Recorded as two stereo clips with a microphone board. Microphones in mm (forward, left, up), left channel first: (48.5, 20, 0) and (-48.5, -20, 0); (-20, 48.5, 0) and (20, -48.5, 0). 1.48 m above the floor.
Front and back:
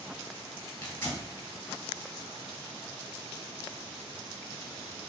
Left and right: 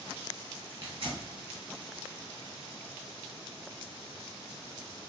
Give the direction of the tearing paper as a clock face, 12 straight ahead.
1 o'clock.